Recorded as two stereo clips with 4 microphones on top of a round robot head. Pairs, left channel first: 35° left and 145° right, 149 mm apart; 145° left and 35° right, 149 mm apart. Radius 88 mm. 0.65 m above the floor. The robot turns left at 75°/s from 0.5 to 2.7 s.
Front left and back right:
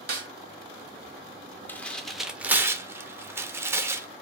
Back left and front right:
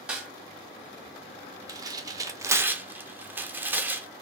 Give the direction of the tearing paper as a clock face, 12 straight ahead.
1 o'clock.